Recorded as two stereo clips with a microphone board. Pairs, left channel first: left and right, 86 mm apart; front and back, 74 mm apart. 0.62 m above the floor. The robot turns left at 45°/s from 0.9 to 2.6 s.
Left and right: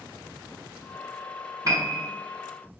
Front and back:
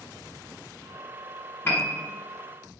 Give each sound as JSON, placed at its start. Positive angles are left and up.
{"t": 1.6, "sound": "a piano", "azimuth_deg": -55, "distance_m": 1.0}